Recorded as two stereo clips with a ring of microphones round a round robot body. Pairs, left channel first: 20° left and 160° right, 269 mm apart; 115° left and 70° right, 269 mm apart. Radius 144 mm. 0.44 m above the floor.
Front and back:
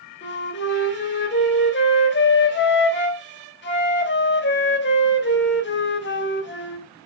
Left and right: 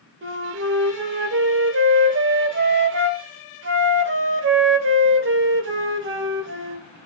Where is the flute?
25° right, 2 m.